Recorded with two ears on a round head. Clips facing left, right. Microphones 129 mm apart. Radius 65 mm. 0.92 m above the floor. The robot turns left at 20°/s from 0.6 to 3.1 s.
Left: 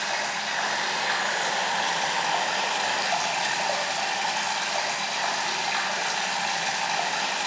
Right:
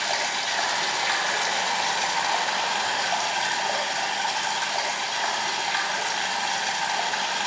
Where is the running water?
140° right, 1.7 m; by 7.5 s 170° left, 1.7 m.